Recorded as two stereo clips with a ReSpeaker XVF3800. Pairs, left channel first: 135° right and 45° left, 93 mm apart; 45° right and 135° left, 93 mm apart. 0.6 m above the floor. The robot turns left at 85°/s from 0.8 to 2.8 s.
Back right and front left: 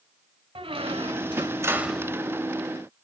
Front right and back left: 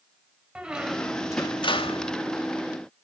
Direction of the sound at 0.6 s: 55° left.